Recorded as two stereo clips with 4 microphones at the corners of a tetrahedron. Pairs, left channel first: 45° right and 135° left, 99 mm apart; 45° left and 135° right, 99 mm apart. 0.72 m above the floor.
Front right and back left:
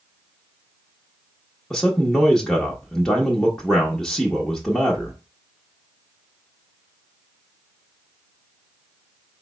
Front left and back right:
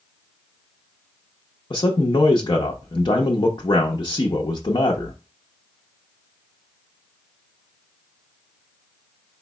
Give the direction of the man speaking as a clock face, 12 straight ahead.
11 o'clock.